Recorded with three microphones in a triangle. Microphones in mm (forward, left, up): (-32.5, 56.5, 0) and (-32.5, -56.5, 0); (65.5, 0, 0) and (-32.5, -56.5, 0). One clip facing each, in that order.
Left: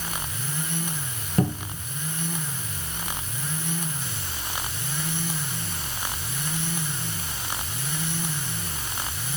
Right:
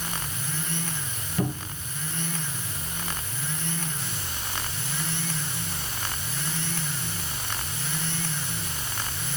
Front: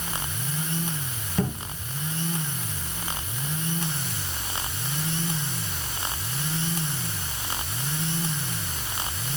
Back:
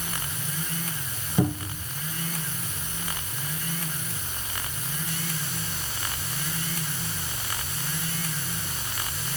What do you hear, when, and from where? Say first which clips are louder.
1.4 s a cupboard door: left 4 dB, back 3 dB; 130° left, 2.5 m